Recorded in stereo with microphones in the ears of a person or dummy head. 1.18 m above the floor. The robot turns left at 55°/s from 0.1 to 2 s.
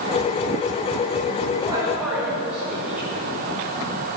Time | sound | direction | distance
1.6 | a man speaking | 20° right (ahead or behind) | 3.5 m